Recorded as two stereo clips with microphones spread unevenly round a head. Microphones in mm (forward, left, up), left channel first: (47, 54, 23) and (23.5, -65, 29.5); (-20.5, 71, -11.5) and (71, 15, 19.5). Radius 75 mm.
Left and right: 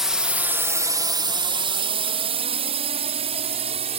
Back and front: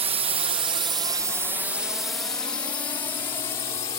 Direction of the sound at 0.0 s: 15° right.